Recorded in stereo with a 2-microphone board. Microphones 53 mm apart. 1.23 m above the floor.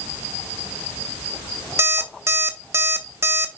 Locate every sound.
1.8 s an alarm clock: 50° right (ahead or behind), 1.2 m